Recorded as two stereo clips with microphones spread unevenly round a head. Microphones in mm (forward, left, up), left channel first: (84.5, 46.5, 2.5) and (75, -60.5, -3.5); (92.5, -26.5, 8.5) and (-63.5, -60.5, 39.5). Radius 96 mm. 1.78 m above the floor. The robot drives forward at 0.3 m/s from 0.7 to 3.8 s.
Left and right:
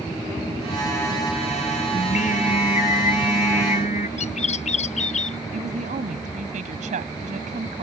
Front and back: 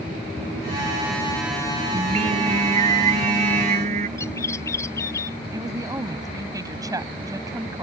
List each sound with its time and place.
1.9 s singing: 135° left
4.2 s a bird: 90° left
5.5 s a woman speaking: 100° right